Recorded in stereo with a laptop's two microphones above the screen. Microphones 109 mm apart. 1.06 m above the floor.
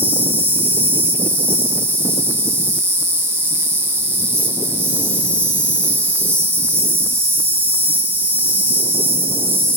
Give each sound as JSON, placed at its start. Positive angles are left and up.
{"t": 0.0, "sound": "an insect", "side_deg": -20, "distance_m": 0.8}